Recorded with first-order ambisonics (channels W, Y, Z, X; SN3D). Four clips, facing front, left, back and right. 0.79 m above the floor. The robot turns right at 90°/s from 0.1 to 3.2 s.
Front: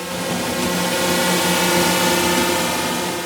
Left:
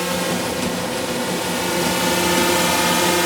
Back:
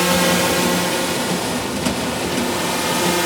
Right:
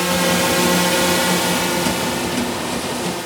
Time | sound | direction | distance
0.0 | a drone | 160° right | ?